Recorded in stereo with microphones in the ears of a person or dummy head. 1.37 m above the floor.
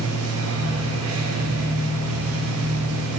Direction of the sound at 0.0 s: 75° right (ahead or behind).